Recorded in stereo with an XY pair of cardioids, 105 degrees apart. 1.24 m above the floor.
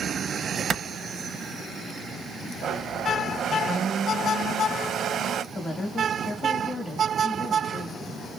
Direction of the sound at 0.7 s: 50° right.